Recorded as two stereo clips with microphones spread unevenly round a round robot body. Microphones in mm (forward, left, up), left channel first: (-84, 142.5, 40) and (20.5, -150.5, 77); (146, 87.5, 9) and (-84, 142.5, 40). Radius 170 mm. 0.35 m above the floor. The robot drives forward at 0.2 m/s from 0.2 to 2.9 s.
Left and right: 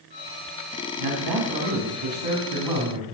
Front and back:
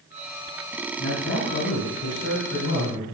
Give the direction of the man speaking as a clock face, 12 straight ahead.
3 o'clock.